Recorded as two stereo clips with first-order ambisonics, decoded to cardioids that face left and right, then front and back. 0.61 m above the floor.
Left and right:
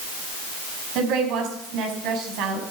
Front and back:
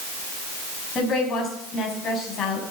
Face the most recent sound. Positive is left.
turn(degrees=-60)